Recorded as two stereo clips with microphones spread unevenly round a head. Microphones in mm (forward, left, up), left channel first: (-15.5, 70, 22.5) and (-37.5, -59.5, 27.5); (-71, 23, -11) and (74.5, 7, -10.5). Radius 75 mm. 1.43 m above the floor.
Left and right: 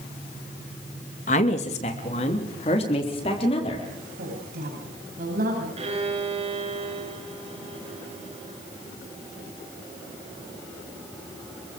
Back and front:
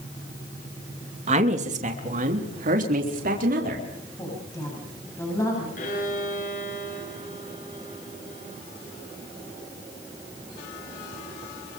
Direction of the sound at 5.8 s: 145° right.